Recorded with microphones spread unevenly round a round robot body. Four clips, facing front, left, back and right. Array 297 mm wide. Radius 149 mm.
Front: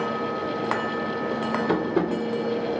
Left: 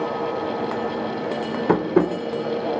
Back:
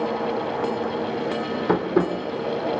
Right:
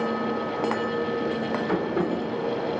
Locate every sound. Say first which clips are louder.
1.7 s tapping: left 9 dB, back 5 dB; 110° left, 1.8 m